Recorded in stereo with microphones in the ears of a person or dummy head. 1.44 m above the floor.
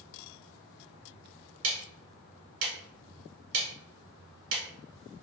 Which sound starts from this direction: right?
Ticking, at 1.6 s.